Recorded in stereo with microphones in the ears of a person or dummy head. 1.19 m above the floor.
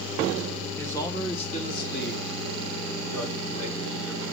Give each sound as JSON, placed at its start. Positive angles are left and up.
{"t": 0.8, "sound": "a man speaking", "side_deg": 15, "distance_m": 1.9}